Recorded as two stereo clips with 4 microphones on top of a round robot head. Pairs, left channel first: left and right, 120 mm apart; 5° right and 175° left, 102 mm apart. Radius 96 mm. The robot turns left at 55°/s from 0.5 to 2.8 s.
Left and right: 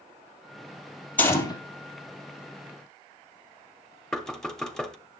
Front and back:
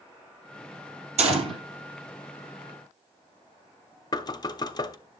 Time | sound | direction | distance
1.2 | a gunshot | 170° left | 2 m
4.1 | knocking | 10° left | 1.0 m